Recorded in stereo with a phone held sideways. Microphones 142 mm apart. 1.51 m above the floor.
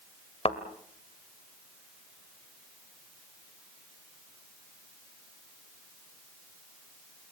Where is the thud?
40° left (ahead or behind), 1.7 m.